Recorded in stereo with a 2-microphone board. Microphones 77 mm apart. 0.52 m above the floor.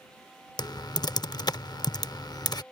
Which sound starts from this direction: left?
Typing on a keyboard, at 0.6 s.